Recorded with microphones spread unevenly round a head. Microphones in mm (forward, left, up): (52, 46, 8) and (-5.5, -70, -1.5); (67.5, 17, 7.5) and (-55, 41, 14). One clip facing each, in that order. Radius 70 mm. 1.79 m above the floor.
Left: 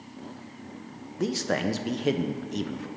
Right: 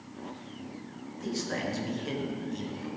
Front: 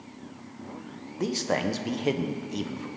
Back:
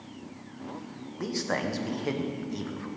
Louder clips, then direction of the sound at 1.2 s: Left 6 dB, front 3 dB; 55° left.